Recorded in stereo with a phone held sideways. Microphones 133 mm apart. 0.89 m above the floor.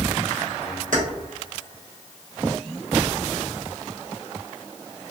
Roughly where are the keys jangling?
Right.